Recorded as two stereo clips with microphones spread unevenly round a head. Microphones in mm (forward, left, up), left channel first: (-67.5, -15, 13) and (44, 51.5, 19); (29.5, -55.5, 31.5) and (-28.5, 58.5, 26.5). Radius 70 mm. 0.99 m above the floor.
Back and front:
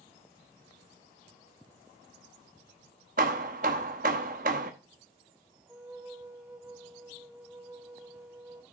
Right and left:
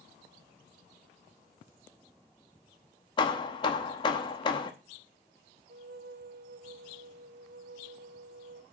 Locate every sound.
3.2 s hammering: 5° right, 0.9 m
5.7 s a flute: 110° left, 0.8 m